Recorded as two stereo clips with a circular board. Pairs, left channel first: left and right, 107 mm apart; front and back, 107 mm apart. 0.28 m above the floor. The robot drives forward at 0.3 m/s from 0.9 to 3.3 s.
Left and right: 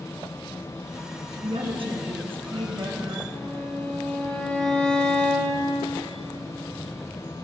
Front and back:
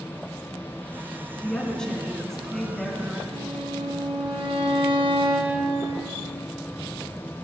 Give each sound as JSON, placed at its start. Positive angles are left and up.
{"t": 1.4, "sound": "a woman speaking", "azimuth_deg": -80, "distance_m": 3.0}
{"t": 3.3, "sound": "a violin", "azimuth_deg": 170, "distance_m": 2.0}